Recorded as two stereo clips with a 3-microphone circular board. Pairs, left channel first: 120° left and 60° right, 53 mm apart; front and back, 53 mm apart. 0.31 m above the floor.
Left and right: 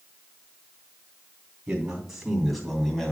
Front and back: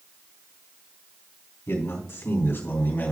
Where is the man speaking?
15° left, 3 m; by 3.1 s 40° left, 2.5 m.